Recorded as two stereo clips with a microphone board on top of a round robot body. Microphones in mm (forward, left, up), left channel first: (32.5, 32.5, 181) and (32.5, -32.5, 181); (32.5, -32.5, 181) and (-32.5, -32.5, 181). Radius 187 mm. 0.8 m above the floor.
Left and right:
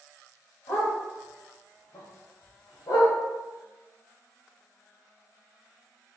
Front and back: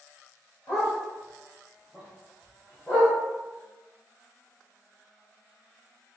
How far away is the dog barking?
About 2.0 m.